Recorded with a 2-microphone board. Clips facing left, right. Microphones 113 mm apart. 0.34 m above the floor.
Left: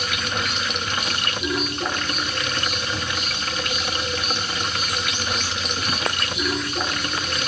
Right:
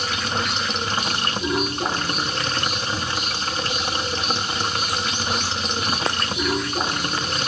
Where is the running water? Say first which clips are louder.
Right 2 dB; 35° right (ahead or behind), 1.0 m.